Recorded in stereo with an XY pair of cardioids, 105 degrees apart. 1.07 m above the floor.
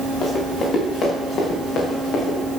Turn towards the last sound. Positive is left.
turn(degrees=75)